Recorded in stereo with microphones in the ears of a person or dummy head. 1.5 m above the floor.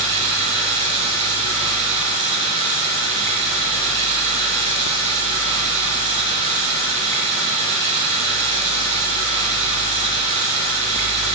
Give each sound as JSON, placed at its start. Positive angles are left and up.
{"t": 0.0, "sound": "running water", "side_deg": -40, "distance_m": 4.5}